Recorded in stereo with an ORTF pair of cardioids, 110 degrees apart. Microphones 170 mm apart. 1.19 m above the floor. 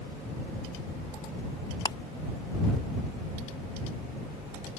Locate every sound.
1.9 s ticking: 25° left